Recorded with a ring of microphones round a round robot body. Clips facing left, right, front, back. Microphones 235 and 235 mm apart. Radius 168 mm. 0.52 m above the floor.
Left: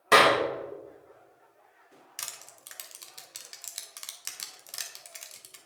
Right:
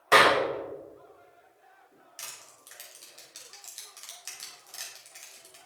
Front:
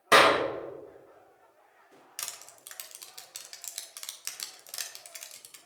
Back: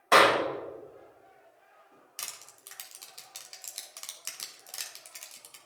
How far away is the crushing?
About 1.3 m.